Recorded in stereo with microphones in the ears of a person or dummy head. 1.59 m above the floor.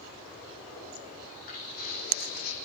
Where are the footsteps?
45° left (ahead or behind), 6 m; by 2.5 s 55° left (ahead or behind), 4.5 m.